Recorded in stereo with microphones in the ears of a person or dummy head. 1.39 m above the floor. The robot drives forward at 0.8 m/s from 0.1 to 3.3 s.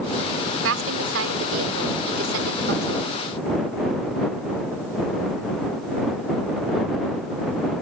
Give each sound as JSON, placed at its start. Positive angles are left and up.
{"t": 0.6, "sound": "a woman speaking", "side_deg": -80}